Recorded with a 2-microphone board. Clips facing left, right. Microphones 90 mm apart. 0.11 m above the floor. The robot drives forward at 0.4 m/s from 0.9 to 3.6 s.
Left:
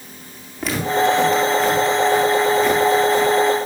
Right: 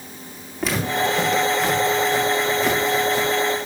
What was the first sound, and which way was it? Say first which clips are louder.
Footsteps: left 4 dB; 5° right (ahead or behind).